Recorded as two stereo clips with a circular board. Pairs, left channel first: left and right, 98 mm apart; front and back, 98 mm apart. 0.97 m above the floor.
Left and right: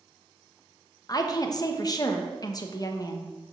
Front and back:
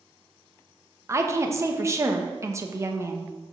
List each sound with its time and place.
1.1 s a woman speaking: 125° left, 0.9 m